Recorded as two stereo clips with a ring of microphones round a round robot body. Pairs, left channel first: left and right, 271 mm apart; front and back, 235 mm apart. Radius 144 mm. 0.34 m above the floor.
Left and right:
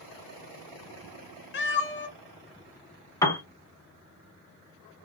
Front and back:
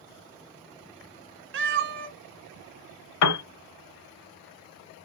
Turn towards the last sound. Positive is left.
turn(degrees=10)